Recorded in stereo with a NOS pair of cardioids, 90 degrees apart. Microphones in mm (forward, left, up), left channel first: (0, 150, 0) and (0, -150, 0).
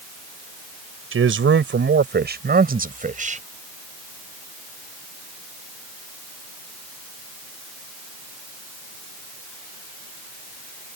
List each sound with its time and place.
1.1 s a man speaking: 45° right; by 3.4 s 25° right